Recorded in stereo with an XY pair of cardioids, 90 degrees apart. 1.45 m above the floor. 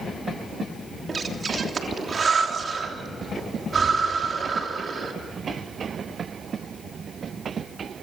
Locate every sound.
1.1 s breathing: 45° right, 3 m